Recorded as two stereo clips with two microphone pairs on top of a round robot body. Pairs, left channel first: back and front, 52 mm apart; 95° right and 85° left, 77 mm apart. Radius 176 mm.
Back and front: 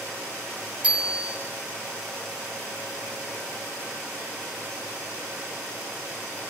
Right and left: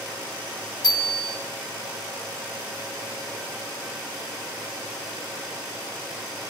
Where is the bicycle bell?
70° right, 6.5 m.